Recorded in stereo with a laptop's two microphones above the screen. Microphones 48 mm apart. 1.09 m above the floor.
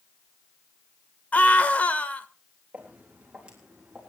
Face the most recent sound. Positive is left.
turn(degrees=-15)  # may be behind; listen again after turning